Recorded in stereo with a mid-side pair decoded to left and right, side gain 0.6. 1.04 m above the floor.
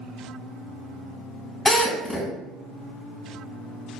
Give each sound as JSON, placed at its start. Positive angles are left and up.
{"t": 1.6, "sound": "a drill", "azimuth_deg": 5, "distance_m": 4.0}